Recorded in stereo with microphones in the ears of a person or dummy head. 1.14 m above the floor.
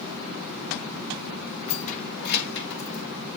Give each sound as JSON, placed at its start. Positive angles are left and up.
{"t": 1.7, "sound": "keys jangling", "side_deg": 40, "distance_m": 1.1}